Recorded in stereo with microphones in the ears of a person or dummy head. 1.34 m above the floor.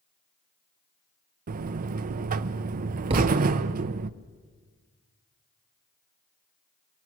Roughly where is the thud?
Right.